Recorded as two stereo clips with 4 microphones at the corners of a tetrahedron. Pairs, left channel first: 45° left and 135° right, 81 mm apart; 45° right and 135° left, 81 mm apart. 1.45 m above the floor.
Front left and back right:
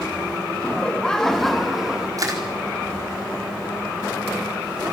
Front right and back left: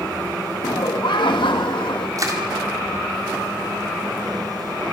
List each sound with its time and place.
0.6 s laughter: 30° right, 1.8 m; by 2.1 s 55° right, 1.8 m
2.2 s crushing: straight behind, 4 m